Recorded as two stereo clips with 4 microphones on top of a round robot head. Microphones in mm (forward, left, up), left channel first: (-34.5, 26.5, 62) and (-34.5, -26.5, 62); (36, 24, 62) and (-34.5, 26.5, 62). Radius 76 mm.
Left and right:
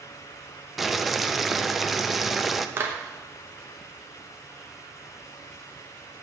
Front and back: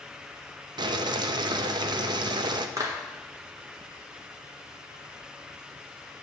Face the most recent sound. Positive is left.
turn(degrees=-125)